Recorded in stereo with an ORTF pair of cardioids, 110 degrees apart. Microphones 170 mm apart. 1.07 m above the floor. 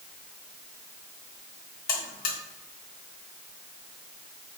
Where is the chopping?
No chopping in this recording.